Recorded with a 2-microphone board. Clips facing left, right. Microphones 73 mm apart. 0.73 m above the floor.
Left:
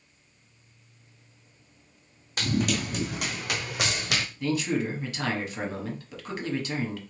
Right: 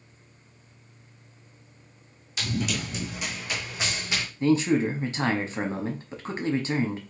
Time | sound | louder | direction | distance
2.4 | running footsteps | left 3 dB | 45° left (ahead or behind) | 2 m
4.4 | a man speaking | right 7 dB | 30° right (ahead or behind) | 1.2 m